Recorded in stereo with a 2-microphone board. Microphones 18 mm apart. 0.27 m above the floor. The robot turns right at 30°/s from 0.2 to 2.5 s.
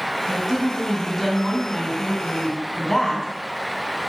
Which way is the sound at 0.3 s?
35° right.